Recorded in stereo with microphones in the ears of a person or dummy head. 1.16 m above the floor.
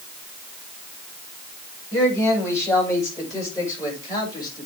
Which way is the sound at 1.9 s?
15° left (ahead or behind).